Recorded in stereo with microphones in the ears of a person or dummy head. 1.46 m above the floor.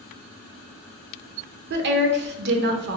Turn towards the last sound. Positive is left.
turn(degrees=-55)  # may be behind; listen again after turning